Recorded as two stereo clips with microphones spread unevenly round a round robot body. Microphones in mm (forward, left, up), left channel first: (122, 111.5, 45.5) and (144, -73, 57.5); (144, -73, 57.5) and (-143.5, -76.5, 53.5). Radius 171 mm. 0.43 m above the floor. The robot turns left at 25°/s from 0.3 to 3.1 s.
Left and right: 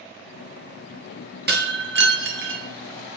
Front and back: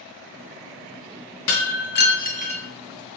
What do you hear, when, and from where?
1.5 s breaking glass: 45° right, 0.7 m; by 2.6 s 70° right, 0.7 m